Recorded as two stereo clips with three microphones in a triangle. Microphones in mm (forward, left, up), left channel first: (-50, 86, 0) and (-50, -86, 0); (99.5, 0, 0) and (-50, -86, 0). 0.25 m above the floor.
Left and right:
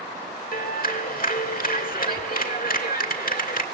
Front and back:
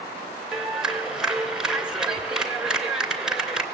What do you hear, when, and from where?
0.5 s a clap: 125° left, 2.5 m